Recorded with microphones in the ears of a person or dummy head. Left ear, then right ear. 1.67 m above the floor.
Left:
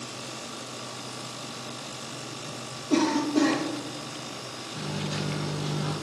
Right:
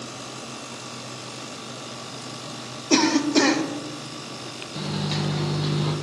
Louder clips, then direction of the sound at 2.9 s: Right 5 dB; 55° right (ahead or behind).